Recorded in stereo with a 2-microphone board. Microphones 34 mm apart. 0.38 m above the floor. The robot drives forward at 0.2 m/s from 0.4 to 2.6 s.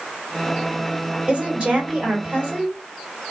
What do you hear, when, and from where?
1.3 s a woman speaking: 40° right (ahead or behind), 1.7 m